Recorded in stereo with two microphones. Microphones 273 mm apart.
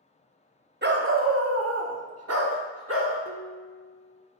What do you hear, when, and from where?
0.8 s a dog barking: 40° right (ahead or behind), 0.7 m; by 3.1 s 55° right (ahead or behind), 1.2 m
3.2 s dishes clattering: 55° right (ahead or behind), 0.7 m